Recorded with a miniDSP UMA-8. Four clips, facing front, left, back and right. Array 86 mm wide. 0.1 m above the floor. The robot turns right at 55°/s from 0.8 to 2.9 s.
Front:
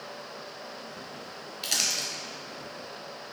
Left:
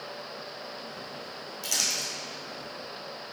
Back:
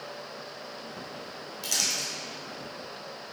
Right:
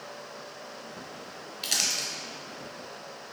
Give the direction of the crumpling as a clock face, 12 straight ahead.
2 o'clock.